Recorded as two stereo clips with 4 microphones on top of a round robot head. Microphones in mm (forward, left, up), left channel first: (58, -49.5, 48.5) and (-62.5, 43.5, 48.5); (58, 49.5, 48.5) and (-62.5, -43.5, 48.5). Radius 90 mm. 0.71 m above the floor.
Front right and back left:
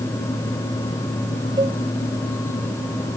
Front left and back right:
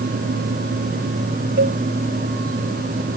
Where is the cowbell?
155° right.